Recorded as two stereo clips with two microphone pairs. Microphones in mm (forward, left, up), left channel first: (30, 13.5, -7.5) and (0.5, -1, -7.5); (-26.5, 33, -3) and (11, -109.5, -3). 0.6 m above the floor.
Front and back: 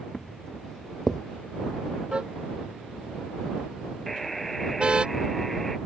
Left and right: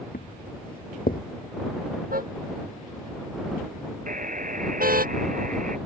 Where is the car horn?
95° right.